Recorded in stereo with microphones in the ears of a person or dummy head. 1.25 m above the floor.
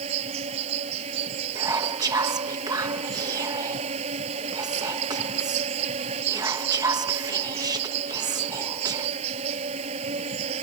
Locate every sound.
0.0 s an insect: 35° right (ahead or behind)
1.6 s whispering: 20° right (ahead or behind)